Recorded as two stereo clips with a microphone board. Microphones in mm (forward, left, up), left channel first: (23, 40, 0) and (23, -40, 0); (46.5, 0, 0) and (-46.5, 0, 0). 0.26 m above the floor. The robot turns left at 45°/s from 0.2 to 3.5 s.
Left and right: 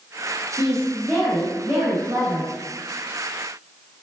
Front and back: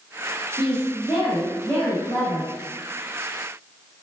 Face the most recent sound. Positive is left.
turn(degrees=-125)